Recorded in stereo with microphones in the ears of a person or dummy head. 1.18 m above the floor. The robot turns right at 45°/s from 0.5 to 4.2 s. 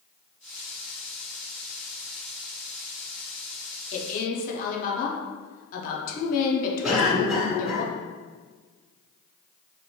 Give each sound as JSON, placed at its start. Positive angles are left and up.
{"t": 3.9, "sound": "a woman speaking", "side_deg": 40, "distance_m": 0.7}
{"t": 6.8, "sound": "a cough", "side_deg": -5, "distance_m": 1.2}